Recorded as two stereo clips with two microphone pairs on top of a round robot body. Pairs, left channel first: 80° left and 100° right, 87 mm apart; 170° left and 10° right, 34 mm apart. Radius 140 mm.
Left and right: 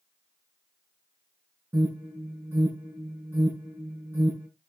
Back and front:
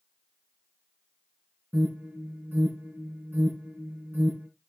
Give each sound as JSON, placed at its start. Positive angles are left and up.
{"t": 1.7, "sound": "an alarm", "azimuth_deg": -40, "distance_m": 7.5}